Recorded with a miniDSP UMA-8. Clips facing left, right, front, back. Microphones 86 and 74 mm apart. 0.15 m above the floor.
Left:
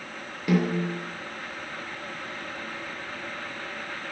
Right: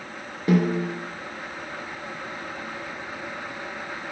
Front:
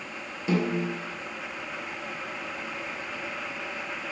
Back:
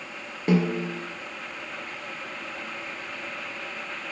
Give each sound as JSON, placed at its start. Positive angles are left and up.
{"t": 0.5, "sound": "a snare drum", "azimuth_deg": -145, "distance_m": 3.0}